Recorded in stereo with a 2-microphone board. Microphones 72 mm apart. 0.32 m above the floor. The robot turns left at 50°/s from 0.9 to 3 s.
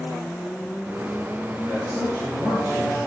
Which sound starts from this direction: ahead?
A man speaking, at 1.7 s.